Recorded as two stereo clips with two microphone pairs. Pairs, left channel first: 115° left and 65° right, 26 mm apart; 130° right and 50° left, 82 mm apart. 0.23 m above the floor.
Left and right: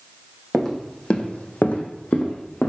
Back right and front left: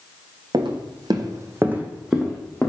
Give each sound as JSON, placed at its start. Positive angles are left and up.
{"t": 0.5, "sound": "footsteps", "azimuth_deg": 45, "distance_m": 0.6}